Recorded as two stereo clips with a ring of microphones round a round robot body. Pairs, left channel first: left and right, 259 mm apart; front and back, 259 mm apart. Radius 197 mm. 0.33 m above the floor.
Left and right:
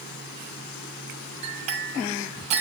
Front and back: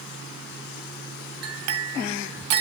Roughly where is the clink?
Behind right.